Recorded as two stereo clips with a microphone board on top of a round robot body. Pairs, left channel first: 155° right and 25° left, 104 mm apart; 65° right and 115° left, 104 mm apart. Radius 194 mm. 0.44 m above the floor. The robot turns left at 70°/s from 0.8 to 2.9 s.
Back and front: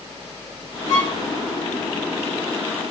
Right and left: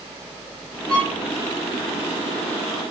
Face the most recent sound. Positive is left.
turn(degrees=60)